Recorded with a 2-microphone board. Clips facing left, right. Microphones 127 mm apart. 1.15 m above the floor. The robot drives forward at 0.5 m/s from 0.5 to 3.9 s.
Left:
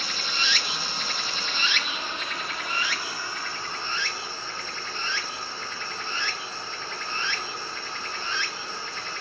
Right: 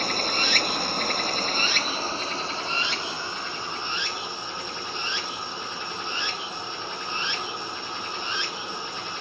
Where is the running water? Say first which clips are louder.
Right 6 dB; 50° right (ahead or behind), 0.7 m; by 9.2 s 20° right (ahead or behind), 1.7 m.